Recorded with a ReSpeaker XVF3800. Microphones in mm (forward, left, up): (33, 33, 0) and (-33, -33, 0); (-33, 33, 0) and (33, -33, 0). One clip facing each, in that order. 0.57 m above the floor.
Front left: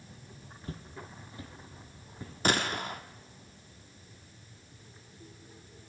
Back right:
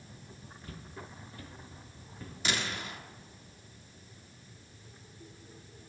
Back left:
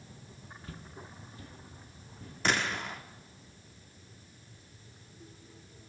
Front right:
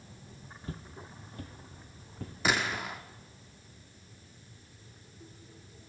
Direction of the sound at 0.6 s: Straight ahead.